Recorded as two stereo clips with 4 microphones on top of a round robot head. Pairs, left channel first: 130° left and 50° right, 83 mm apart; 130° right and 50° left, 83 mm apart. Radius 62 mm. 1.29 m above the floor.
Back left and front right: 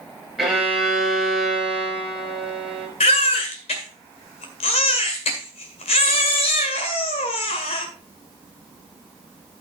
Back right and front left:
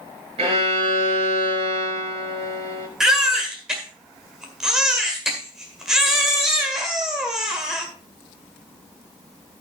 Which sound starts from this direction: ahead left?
A violin, at 0.4 s.